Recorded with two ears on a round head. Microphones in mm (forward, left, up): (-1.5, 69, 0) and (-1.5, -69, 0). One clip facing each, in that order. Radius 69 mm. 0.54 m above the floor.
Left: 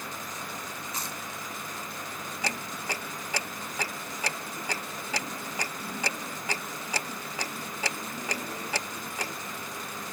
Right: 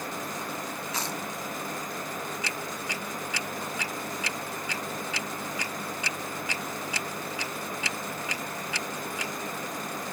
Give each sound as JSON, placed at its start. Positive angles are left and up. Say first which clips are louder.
{"t": 0.9, "sound": "chewing", "louder": "right 6 dB", "side_deg": -55}
{"t": 2.4, "sound": "ticking", "louder": "even", "side_deg": 35}